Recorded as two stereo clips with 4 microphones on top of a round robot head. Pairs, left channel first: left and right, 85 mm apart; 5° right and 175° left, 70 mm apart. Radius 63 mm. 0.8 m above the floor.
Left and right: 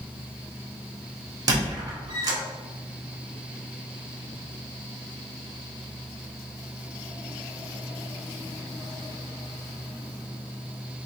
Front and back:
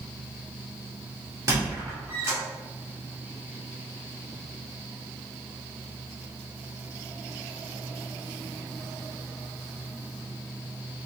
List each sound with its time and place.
1.5 s a squeak: 120° right, 1.0 m